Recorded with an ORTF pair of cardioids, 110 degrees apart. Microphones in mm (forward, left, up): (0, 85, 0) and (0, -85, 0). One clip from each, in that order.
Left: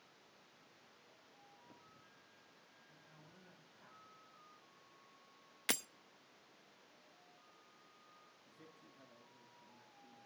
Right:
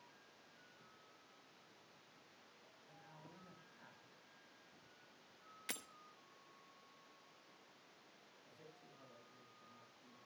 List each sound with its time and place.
2.9 s a woman speaking: 25° right, 6.5 m; by 4.1 s 15° right, 6 m
5.7 s breaking glass: 50° left, 0.7 m
8.4 s a man speaking: straight ahead, 9.5 m